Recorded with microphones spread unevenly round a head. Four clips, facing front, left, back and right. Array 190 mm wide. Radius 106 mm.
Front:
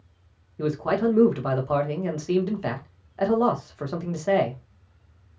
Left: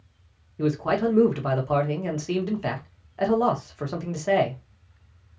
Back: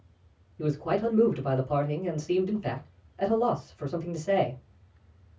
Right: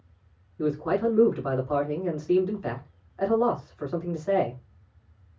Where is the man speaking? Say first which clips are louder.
Left 2 dB, front 4 dB; 45° left, 1.3 m.